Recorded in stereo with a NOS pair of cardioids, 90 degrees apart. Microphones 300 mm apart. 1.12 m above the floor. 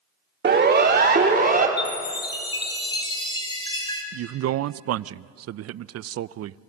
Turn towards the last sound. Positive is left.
turn(degrees=-55)